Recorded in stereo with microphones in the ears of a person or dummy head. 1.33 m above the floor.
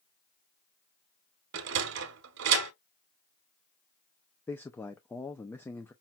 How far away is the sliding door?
About 1.2 m.